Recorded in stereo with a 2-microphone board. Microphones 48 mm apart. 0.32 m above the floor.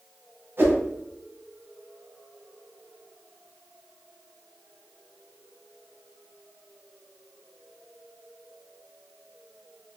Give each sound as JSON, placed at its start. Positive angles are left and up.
{"t": 0.6, "sound": "a whoosh", "side_deg": -50, "distance_m": 1.5}